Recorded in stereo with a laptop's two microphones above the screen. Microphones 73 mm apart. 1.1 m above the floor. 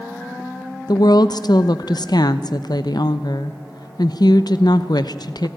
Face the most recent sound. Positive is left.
turn(degrees=65)  # may be behind; listen again after turning